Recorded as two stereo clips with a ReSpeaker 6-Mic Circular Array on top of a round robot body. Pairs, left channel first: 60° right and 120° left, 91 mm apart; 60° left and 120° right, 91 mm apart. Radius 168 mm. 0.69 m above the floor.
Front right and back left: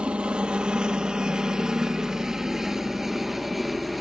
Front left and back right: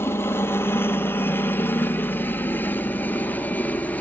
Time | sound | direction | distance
0.0 | a helicopter | 55° left | ?